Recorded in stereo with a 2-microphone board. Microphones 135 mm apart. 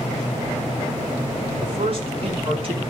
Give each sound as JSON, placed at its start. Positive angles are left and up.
{"t": 1.6, "sound": "a man speaking", "side_deg": -45, "distance_m": 7.0}